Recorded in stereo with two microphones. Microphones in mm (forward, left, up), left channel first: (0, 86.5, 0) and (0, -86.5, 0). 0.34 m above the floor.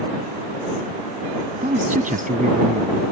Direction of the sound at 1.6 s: 55° right (ahead or behind).